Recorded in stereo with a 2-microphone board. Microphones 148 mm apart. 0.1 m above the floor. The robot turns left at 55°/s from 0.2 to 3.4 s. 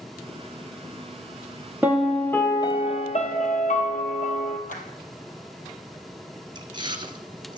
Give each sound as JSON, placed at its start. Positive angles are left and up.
{"t": 1.8, "sound": "a piano", "azimuth_deg": -165, "distance_m": 1.5}
{"t": 4.7, "sound": "a clap", "side_deg": 60, "distance_m": 2.5}
{"t": 6.5, "sound": "chewing", "side_deg": -30, "distance_m": 1.3}